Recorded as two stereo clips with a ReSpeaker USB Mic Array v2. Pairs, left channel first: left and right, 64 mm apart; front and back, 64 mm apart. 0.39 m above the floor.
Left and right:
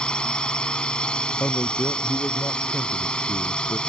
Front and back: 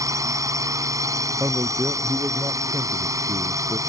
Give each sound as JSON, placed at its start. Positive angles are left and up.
{"t": 0.0, "sound": "a drone", "azimuth_deg": 165}
{"t": 1.4, "sound": "a man speaking", "azimuth_deg": 140}